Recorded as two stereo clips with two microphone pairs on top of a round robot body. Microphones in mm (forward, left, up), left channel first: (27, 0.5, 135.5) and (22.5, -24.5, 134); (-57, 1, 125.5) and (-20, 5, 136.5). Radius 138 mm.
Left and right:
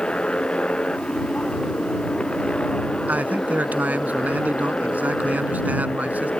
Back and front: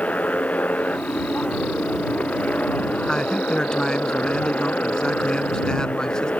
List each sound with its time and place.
0.0 s a motorcycle: 135° left
3.1 s a man speaking: 100° right